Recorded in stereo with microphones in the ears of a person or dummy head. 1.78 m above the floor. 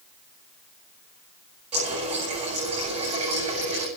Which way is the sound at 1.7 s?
35° right (ahead or behind).